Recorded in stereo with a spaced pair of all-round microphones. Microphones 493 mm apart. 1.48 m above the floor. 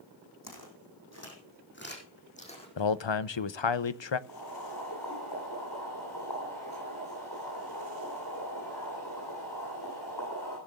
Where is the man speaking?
60° left (ahead or behind), 0.7 m.